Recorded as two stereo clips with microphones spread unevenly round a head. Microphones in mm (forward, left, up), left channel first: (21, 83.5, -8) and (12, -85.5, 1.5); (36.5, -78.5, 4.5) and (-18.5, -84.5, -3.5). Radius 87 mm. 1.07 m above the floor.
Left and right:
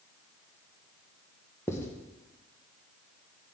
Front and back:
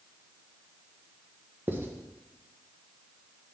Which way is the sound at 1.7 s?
155° left.